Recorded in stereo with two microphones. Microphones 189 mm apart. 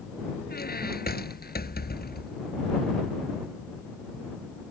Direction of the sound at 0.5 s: 55° left (ahead or behind).